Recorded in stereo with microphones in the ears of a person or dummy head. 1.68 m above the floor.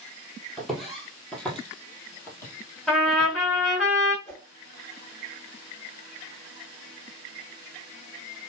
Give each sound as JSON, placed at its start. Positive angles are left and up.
{"t": 0.6, "sound": "footsteps", "side_deg": 0, "distance_m": 1.7}
{"t": 2.9, "sound": "a trumpet", "side_deg": 5, "distance_m": 3.5}
{"t": 4.2, "sound": "a whoosh", "side_deg": 15, "distance_m": 1.7}